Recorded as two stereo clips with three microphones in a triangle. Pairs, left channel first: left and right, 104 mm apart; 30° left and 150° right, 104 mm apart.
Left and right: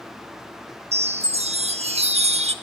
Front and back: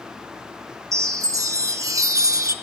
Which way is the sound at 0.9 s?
90° right.